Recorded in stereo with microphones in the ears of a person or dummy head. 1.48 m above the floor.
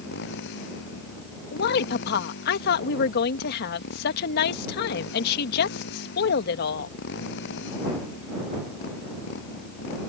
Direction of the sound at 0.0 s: 65° left (ahead or behind).